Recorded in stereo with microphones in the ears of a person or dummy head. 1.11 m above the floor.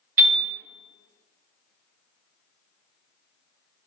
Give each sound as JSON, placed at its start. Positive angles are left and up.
{"t": 0.2, "sound": "a piano", "side_deg": -40, "distance_m": 1.6}